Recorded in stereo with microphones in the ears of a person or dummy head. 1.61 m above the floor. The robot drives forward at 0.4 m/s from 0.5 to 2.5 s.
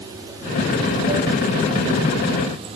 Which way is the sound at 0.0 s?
25° right (ahead or behind).